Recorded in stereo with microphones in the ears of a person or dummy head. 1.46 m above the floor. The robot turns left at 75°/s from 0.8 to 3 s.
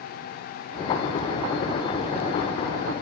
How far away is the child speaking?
No child speaking in this recording.